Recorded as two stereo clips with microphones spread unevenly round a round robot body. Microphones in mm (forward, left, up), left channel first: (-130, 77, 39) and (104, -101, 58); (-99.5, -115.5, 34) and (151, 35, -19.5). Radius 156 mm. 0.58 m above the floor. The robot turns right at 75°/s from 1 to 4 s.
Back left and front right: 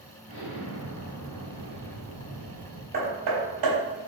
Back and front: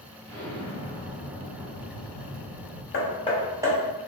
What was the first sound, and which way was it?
An explosion, 120° left.